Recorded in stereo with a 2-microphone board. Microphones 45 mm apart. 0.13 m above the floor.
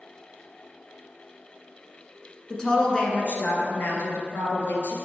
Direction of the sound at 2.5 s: 15° left (ahead or behind).